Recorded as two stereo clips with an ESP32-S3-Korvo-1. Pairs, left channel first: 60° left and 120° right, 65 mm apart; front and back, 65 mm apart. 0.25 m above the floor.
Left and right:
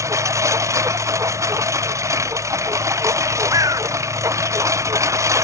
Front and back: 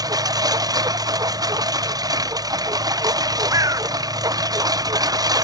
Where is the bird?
150° right.